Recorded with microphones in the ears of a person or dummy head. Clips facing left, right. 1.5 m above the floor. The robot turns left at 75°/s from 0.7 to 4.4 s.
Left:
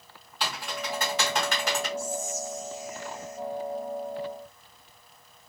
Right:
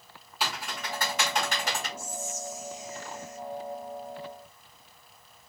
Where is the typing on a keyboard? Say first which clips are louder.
Left 1 dB; 5° right (ahead or behind), 1.5 m; by 1.9 s 75° left (ahead or behind), 1.5 m.